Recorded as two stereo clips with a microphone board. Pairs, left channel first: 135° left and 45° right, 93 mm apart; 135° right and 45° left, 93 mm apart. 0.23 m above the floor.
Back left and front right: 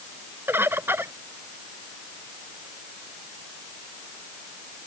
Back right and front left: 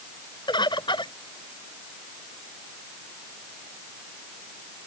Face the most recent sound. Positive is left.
turn(degrees=-110)